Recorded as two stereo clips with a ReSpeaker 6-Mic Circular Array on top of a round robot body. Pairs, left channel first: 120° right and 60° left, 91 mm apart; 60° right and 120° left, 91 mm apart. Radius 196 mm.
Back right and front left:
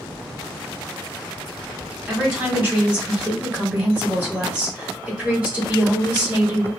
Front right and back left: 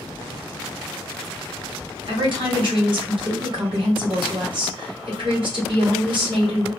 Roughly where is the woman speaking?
Behind left.